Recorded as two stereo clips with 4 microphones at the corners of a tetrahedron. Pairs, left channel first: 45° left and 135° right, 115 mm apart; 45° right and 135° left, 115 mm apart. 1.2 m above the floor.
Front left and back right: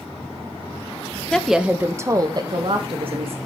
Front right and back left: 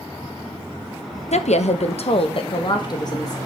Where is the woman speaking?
40° right, 1.0 m; by 3.4 s 100° right, 2.0 m.